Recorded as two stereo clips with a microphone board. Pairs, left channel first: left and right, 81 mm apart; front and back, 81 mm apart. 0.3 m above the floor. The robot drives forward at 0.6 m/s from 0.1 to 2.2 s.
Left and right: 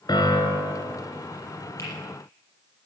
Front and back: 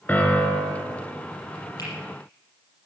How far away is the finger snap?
About 6.5 m.